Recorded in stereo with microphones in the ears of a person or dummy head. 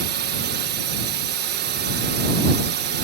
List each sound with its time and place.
0.0 s a drone: 45° right (ahead or behind)